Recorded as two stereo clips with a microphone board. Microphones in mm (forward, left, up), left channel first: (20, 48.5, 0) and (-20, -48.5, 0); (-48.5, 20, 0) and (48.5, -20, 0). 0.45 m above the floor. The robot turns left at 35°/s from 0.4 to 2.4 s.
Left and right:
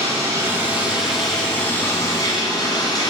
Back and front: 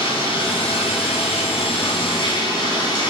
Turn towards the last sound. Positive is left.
turn(degrees=115)